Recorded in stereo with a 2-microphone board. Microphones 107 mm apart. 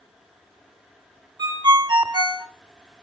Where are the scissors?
I don't hear scissors.